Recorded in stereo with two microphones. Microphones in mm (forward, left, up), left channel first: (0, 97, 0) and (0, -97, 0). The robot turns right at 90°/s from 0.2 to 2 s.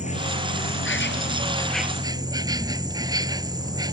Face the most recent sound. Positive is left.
turn(degrees=-160)